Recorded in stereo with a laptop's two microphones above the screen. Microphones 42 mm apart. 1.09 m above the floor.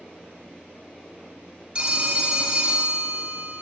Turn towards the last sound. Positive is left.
turn(degrees=-25)  # may be behind; listen again after turning